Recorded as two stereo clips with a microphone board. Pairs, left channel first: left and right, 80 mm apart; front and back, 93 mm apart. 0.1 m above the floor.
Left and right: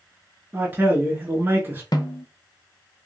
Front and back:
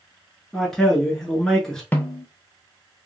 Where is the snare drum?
70° left, 0.5 m.